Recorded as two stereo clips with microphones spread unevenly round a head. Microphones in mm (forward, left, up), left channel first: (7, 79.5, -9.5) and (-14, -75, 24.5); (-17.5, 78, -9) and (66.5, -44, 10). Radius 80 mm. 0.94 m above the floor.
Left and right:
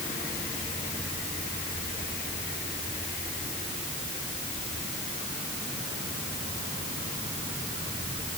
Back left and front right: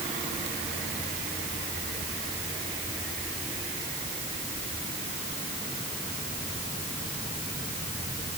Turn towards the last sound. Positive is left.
No sound to turn to.